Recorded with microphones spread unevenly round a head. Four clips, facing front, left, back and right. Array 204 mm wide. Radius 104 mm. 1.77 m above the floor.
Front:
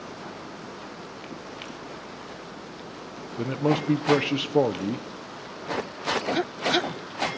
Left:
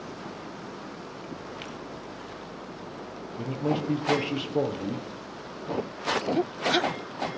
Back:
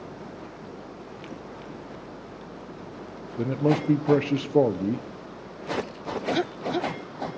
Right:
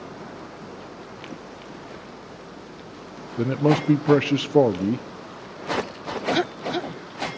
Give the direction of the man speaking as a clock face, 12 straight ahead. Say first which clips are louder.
Right 8 dB, back 1 dB; 3 o'clock.